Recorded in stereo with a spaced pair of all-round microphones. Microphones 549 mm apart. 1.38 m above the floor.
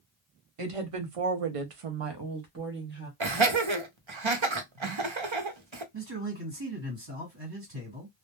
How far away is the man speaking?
About 1.6 m.